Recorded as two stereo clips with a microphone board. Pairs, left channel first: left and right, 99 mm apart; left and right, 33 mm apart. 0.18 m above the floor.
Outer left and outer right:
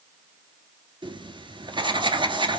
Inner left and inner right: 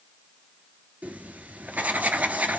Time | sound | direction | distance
1.0 | writing | 55° right (ahead or behind) | 0.8 m